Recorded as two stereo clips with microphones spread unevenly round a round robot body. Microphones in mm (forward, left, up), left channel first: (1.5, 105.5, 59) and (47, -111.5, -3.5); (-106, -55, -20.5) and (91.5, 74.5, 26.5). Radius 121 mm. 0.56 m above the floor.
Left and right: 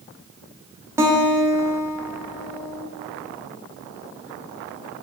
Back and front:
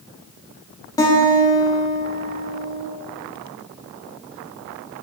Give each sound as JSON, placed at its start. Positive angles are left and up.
{"t": 1.0, "sound": "a guitar", "azimuth_deg": -110, "distance_m": 0.6}